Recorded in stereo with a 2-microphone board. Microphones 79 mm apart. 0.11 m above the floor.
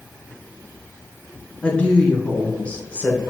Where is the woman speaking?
20° left (ahead or behind), 1.1 m.